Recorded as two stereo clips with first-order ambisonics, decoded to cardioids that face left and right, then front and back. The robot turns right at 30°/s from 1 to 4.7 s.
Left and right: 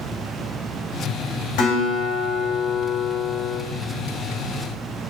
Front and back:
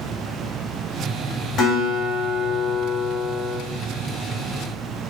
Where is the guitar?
65° left, 1.9 m; by 3.6 s 125° left, 1.9 m.